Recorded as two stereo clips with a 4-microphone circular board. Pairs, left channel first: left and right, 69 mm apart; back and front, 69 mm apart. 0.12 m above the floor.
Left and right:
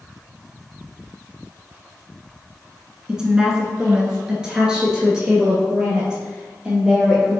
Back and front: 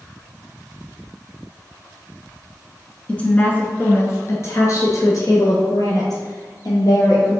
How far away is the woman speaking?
About 1.2 m.